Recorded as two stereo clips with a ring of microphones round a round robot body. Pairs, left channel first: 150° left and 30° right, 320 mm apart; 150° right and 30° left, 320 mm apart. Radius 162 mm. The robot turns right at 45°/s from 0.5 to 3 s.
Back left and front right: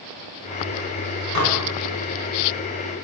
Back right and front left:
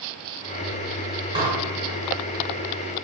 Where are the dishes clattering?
45° right, 1.1 m; by 1.6 s 35° right, 1.1 m.